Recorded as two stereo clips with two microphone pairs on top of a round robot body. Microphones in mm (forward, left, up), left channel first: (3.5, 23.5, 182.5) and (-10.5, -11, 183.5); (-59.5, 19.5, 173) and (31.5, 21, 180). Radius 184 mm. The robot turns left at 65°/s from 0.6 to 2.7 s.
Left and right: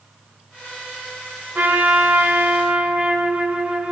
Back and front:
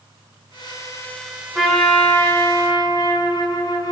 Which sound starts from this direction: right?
A trumpet, at 1.6 s.